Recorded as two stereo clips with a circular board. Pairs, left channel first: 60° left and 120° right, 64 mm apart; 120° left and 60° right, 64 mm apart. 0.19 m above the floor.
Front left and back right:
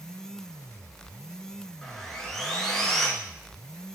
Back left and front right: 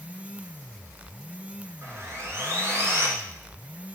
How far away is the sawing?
About 2 m.